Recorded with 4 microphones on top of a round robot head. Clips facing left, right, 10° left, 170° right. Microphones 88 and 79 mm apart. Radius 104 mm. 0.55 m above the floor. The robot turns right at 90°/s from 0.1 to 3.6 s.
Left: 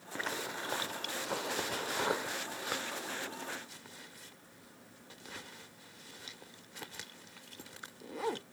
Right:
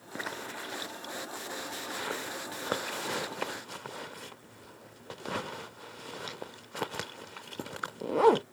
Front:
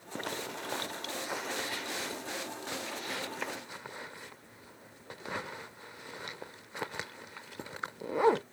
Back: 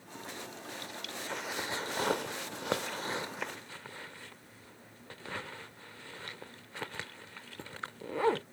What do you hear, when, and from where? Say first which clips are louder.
0.1 s a zipper: even, front 7 dB; 15° right; by 8.4 s 65° right